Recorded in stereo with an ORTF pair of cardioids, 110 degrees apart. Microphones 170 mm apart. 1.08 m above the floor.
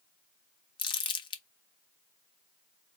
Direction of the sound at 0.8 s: 30° left.